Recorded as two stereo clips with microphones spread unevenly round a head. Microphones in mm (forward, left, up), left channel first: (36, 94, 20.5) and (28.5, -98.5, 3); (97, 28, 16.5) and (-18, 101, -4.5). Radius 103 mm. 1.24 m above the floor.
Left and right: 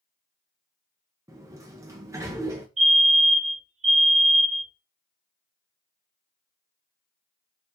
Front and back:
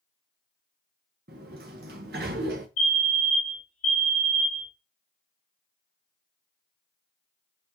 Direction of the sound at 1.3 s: 170° right.